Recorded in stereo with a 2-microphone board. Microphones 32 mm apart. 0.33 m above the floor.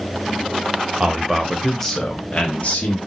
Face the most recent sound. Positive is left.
turn(degrees=45)  # may be behind; listen again after turning